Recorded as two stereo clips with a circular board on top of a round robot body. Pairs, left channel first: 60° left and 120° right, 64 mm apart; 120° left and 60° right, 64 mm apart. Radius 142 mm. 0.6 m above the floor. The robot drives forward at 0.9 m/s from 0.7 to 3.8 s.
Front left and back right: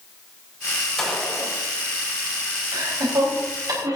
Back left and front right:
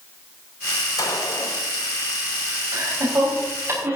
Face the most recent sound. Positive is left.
turn(degrees=-115)